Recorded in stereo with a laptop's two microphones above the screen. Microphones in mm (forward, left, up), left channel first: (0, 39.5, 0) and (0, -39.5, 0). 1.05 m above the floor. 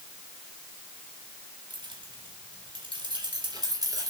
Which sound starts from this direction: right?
Keys jangling, at 1.7 s.